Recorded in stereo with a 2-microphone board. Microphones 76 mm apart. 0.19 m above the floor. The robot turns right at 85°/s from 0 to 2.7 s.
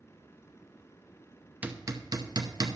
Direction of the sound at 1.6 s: 20° right (ahead or behind).